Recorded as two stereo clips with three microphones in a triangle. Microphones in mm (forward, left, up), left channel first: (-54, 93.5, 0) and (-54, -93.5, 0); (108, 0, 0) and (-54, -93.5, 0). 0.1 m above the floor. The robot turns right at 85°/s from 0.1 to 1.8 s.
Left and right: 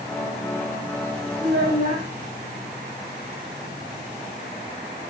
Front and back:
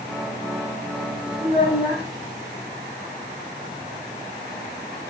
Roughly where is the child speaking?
Right.